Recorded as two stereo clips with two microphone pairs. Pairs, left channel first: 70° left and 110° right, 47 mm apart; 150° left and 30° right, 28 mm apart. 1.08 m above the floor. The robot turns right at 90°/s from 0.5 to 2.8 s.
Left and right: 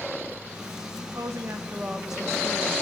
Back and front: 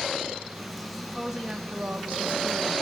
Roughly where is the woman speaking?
Behind right.